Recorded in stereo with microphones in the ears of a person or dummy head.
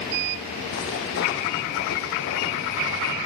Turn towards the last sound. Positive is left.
turn(degrees=60)  # may be behind; listen again after turning